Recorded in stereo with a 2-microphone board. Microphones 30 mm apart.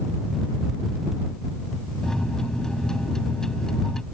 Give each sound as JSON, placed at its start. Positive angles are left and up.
{"t": 2.0, "sound": "a microwave", "side_deg": 20}